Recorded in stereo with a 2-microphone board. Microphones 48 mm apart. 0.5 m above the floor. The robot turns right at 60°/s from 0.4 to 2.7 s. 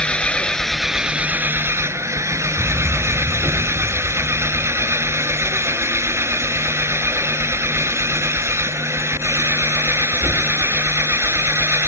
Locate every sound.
0.0 s an engine running: 160° left; by 11.9 s 65° right
2.6 s a fire alarm: 80° right; by 10.3 s 75° right (ahead or behind)